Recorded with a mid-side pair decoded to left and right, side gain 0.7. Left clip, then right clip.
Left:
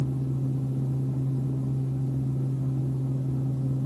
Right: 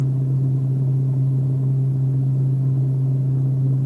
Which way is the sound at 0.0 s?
20° right.